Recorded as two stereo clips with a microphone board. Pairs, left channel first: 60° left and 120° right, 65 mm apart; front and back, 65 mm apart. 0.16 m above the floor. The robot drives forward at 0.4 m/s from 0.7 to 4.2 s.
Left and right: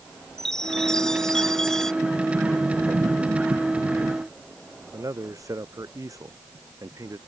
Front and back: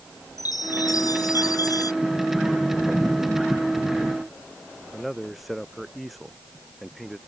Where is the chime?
20° right.